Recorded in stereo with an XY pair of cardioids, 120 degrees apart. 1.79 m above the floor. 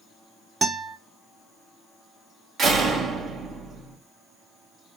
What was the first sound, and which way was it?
A guitar, 35° right.